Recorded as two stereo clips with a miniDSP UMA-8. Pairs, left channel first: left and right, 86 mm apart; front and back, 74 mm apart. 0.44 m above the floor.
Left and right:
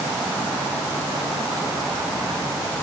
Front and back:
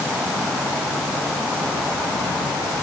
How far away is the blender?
No blender in this recording.